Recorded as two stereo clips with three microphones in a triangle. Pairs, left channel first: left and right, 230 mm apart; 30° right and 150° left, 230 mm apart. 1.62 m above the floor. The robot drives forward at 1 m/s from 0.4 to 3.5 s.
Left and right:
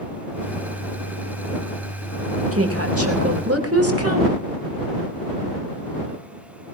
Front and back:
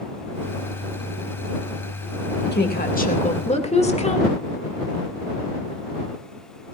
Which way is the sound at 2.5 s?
75° right.